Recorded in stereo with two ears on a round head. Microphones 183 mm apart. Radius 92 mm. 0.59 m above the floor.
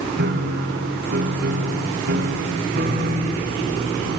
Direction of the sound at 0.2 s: 50° right (ahead or behind).